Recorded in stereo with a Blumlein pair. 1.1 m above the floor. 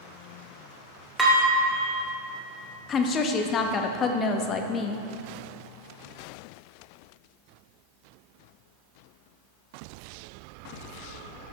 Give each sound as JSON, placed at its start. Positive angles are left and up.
{"t": 1.2, "sound": "dishes clattering", "azimuth_deg": -10, "distance_m": 2.5}
{"t": 2.9, "sound": "a woman speaking", "azimuth_deg": 25, "distance_m": 1.0}